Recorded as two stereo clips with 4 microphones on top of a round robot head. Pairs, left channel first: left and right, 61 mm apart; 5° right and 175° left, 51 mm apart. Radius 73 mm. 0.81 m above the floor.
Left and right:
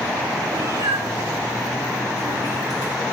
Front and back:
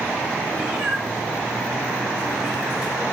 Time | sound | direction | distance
0.5 | a cat meowing | 105° right | 7.5 m